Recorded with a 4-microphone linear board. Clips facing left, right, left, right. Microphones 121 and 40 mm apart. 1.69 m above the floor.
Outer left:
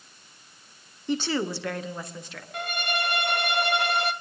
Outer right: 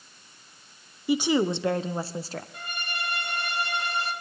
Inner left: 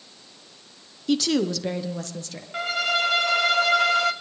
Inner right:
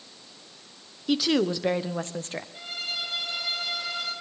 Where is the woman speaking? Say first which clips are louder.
Outer right 4 dB, inner left 1 dB; 10° right (ahead or behind), 1.0 m; by 2.4 s 35° right (ahead or behind), 1.7 m.